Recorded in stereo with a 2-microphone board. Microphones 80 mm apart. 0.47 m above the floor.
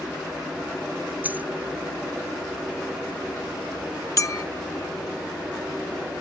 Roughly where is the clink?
Left.